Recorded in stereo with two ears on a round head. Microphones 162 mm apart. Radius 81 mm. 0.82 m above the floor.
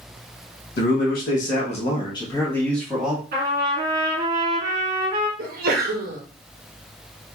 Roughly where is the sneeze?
Right.